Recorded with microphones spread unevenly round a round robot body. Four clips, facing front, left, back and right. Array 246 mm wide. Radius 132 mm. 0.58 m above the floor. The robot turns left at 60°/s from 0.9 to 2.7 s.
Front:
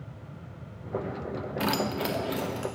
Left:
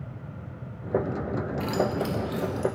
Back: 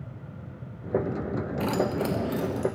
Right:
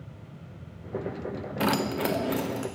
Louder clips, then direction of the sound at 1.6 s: Right 2 dB, back 2 dB; 65° right.